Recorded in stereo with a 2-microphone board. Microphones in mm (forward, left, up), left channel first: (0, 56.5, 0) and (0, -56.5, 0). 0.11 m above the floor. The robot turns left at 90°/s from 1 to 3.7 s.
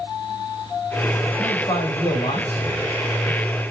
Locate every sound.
1.4 s a man speaking: 165° left, 5.5 m; by 2.6 s 50° left, 5.5 m